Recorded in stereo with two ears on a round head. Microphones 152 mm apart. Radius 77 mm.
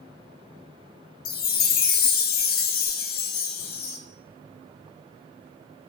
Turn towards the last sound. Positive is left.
turn(degrees=55)  # may be behind; listen again after turning